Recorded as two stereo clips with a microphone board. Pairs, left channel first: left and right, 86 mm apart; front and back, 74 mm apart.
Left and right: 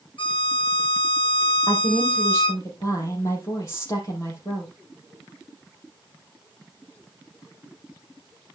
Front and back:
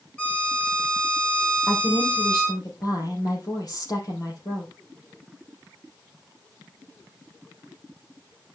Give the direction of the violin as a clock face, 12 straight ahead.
10 o'clock.